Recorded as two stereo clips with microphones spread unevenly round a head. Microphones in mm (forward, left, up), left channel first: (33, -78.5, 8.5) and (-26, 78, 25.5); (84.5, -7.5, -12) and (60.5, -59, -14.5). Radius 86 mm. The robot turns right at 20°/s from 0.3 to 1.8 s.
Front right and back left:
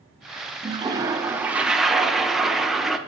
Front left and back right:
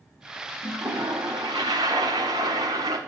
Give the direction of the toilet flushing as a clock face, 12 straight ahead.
6 o'clock.